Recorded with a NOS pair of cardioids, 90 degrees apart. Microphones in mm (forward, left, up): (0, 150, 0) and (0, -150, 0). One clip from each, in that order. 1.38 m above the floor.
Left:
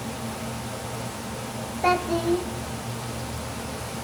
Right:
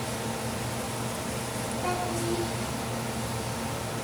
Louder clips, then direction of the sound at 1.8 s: Left 9 dB; 60° left.